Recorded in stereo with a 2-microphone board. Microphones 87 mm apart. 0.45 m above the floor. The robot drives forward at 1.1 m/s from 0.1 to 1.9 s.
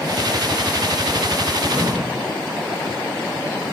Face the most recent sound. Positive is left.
turn(degrees=-70)  # may be behind; listen again after turning